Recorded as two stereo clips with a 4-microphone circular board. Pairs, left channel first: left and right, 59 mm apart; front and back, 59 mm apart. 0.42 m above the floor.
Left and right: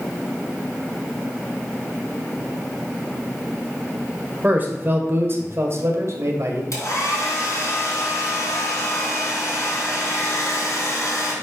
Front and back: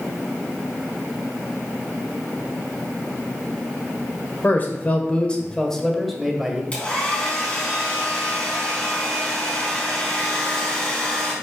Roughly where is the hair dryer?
Ahead left.